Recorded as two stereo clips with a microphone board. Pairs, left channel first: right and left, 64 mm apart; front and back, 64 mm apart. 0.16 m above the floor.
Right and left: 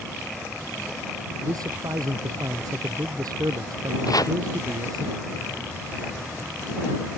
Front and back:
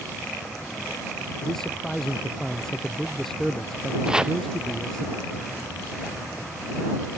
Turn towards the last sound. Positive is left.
turn(degrees=-100)